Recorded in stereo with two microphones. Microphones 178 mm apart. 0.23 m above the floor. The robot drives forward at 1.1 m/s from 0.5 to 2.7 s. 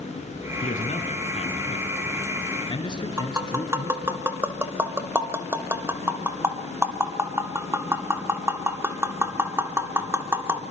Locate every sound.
0.6 s a man speaking: 45° left (ahead or behind), 2.5 m; by 4.2 s 25° left (ahead or behind), 4 m
3.2 s tapping: 15° right (ahead or behind), 1.6 m